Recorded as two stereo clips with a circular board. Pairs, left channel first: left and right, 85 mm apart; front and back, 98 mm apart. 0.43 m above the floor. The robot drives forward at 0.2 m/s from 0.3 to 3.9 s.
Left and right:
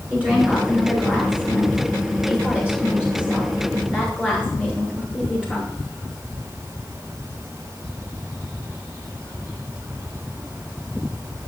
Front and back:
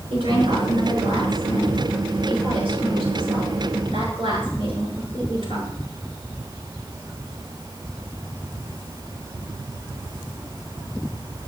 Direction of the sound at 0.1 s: 165° right.